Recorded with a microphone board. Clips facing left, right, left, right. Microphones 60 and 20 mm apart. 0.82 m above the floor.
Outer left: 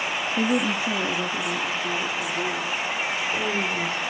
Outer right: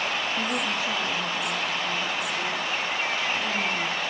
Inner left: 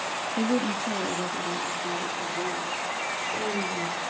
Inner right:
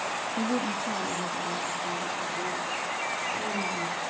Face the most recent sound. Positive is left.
turn(degrees=75)  # may be behind; listen again after turning